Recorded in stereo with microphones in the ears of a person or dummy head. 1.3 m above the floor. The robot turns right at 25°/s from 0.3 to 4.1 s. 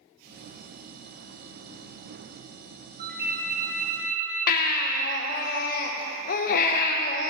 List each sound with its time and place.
3.0 s a ringtone: 50° right (ahead or behind), 2 m; by 5.2 s 75° right (ahead or behind), 2 m
4.5 s a baby crying: 45° left (ahead or behind), 0.6 m